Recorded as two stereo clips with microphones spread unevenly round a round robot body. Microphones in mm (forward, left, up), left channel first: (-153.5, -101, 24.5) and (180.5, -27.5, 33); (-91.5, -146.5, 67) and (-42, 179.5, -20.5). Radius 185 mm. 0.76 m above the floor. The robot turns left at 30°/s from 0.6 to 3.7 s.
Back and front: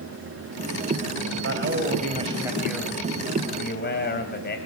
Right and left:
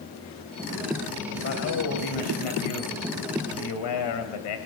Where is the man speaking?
35° right, 4 m; by 4.6 s 105° right, 4 m.